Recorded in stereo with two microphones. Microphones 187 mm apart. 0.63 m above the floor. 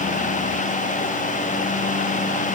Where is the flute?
No flute in this recording.